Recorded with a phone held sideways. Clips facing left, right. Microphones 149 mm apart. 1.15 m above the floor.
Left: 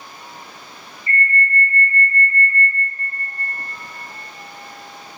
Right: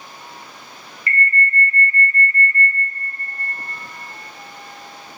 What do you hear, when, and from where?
1.1 s an alarm: 80° right, 0.7 m